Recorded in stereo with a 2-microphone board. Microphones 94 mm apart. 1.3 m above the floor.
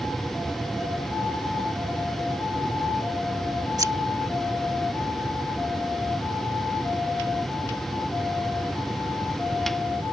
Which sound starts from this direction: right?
Scissors, at 3.8 s.